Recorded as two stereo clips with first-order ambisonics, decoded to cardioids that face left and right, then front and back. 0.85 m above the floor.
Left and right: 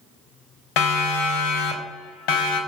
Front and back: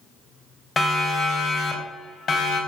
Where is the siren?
75° left, 3.5 m; by 2.6 s 65° left, 4.5 m.